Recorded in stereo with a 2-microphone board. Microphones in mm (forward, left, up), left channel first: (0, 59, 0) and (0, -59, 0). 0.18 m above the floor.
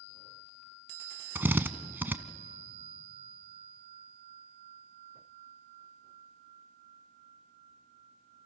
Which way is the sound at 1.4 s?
15° right (ahead or behind).